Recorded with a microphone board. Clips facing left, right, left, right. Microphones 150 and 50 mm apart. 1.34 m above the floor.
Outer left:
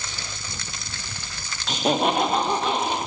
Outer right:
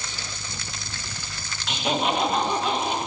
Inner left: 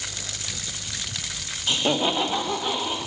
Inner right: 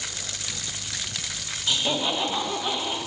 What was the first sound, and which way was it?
Laughter, 35° left (ahead or behind).